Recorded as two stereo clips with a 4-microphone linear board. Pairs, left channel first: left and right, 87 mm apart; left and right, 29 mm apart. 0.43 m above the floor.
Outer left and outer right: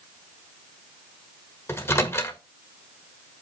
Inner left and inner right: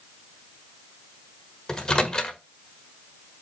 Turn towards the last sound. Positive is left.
turn(degrees=30)  # may be behind; listen again after turning